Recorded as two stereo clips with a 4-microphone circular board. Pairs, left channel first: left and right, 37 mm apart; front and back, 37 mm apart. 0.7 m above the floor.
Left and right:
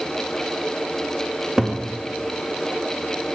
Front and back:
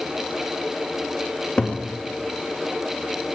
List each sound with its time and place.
1.6 s a cupboard door: 20° right, 0.5 m